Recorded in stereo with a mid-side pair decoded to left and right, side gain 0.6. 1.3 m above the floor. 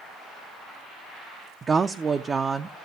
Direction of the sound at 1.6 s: 25° right.